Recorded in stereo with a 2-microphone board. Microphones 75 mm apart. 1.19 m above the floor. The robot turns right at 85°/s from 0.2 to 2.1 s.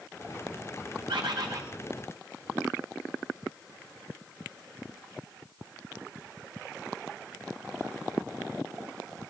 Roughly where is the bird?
Right.